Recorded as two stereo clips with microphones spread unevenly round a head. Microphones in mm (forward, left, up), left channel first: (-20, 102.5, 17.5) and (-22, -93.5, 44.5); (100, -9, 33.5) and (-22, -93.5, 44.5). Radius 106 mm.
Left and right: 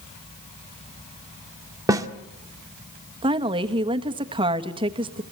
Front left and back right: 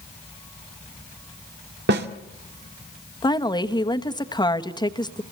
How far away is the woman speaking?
About 1.4 m.